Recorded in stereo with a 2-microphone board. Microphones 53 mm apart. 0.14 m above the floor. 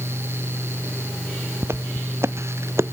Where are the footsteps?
60° right (ahead or behind); by 2.9 s 65° right (ahead or behind).